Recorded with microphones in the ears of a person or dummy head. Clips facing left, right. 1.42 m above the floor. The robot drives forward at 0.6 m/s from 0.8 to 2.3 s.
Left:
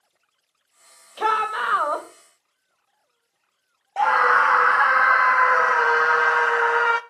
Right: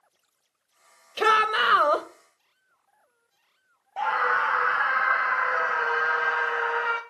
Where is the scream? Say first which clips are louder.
Left 7 dB; 50° left (ahead or behind), 0.6 m.